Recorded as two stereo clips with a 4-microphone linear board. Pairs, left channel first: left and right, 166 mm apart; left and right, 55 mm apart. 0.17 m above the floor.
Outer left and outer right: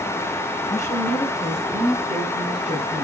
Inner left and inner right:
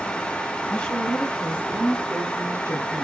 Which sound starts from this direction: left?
A woman speaking, at 0.7 s.